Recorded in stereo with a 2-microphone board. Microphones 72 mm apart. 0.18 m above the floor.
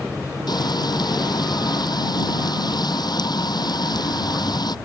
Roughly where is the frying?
Left.